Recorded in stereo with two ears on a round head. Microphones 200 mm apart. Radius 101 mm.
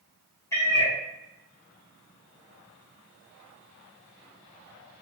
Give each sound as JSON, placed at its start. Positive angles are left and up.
{"t": 0.5, "sound": "a cat meowing", "side_deg": 15, "distance_m": 0.9}